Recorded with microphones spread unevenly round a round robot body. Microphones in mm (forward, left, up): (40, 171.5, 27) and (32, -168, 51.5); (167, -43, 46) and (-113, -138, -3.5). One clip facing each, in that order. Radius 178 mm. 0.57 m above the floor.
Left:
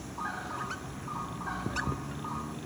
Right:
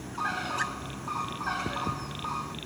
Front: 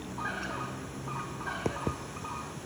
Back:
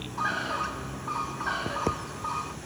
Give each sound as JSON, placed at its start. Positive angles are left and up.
{"t": 0.2, "sound": "a bird", "azimuth_deg": -135}